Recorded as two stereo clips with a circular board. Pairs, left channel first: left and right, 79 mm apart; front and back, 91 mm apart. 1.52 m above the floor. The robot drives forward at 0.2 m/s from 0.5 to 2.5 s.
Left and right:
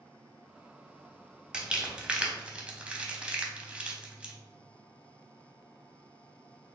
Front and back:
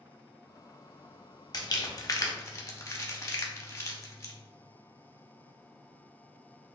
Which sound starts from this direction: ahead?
Crumpling, at 1.5 s.